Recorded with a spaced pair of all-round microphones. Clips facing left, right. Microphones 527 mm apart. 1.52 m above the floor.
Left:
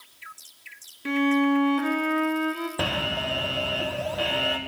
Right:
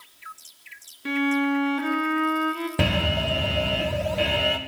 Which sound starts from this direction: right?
An alarm, at 2.8 s.